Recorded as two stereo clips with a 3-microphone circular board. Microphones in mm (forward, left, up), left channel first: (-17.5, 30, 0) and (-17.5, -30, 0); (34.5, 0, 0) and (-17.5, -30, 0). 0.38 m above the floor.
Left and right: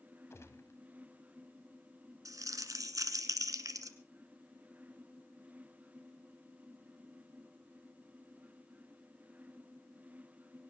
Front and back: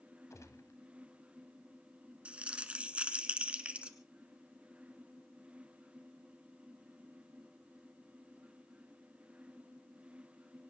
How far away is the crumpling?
About 1.6 m.